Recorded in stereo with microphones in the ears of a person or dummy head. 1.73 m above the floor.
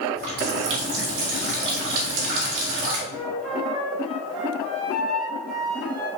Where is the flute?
Centre (ahead or behind), 3 m.